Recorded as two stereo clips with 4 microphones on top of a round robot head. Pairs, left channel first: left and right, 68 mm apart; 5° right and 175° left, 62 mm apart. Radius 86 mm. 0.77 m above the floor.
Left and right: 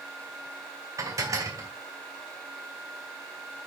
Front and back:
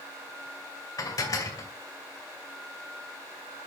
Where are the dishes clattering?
40° right, 2.5 m.